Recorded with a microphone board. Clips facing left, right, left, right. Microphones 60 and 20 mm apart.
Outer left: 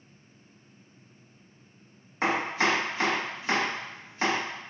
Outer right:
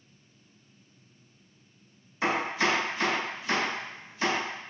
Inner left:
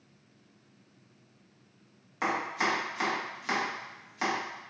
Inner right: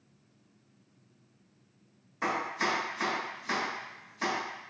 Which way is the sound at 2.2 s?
45° left (ahead or behind).